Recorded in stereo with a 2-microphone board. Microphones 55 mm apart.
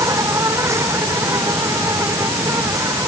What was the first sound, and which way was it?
An insect, 70° right (ahead or behind).